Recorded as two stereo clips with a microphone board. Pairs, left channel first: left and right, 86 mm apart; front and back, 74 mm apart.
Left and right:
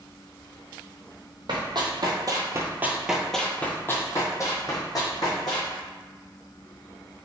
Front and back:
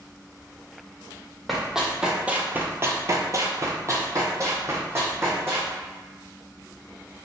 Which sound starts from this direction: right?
Running footsteps, at 1.5 s.